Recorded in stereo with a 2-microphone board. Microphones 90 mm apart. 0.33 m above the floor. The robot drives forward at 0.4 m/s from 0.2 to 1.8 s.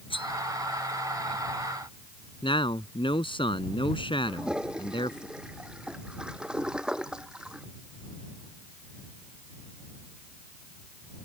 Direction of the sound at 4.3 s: 10° right (ahead or behind).